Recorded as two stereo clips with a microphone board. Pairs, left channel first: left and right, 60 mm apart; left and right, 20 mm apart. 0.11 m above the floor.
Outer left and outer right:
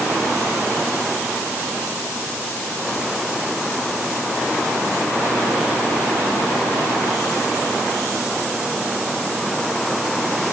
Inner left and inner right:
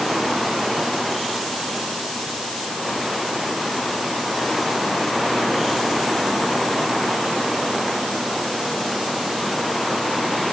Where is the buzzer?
No buzzer in this recording.